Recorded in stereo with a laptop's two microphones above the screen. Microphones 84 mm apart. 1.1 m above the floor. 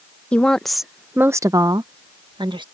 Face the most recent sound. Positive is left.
turn(degrees=-65)  # may be behind; listen again after turning